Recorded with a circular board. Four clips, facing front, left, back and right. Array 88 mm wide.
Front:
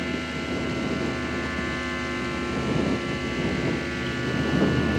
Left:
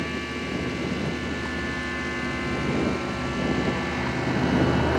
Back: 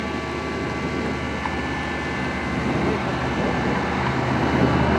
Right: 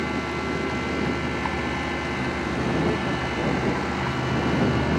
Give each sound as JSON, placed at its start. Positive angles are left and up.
{"t": 0.0, "sound": "a vehicle", "azimuth_deg": -135}